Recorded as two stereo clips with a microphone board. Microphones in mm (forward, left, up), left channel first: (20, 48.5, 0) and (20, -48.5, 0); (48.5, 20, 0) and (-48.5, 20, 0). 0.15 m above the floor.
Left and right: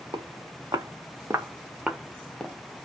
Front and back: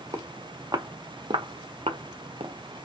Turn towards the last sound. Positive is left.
turn(degrees=170)